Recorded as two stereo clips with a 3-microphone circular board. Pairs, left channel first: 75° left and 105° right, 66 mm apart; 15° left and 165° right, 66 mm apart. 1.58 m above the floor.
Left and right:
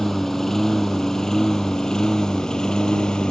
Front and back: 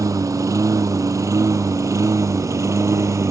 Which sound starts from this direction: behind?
A lawn mower, at 0.0 s.